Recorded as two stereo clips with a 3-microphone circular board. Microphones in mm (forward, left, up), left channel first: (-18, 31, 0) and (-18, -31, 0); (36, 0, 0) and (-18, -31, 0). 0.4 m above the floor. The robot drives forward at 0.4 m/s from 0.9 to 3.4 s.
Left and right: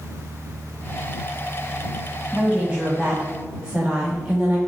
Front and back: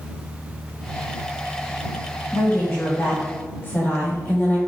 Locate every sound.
2.3 s a woman speaking: 15° right, 3 m; by 4.6 s 20° right, 2.5 m